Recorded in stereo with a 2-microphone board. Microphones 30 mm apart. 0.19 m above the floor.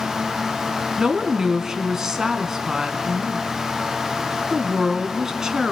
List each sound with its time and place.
1.0 s a woman speaking: 20° right (ahead or behind), 2 m